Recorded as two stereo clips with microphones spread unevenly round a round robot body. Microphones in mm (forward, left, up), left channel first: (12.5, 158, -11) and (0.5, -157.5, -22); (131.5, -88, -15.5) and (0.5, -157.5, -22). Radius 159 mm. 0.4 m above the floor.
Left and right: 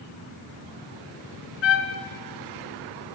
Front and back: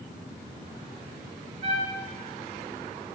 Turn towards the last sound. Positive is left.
turn(degrees=135)